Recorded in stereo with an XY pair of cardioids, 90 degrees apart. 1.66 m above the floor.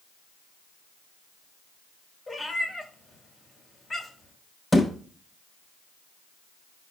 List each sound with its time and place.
2.3 s a cat meowing: 40° left, 3.5 m
4.7 s a thud: 30° left, 3 m